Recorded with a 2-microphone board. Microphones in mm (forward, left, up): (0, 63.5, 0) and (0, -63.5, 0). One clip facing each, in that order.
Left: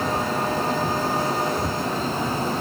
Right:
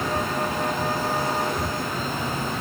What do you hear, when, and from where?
Only background noise.